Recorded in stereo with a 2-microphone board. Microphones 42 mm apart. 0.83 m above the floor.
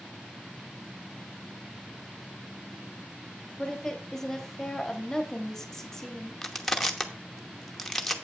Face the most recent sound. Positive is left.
turn(degrees=5)  # may be behind; listen again after turning